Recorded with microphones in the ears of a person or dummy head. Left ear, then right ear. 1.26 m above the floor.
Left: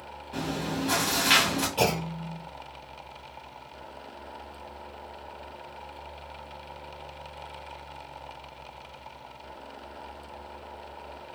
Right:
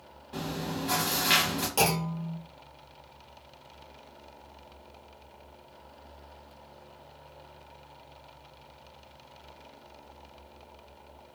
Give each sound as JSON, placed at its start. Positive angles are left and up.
{"t": 0.3, "sound": "chewing", "side_deg": 5, "distance_m": 1.1}
{"t": 1.8, "sound": "a clunk", "side_deg": -50, "distance_m": 1.2}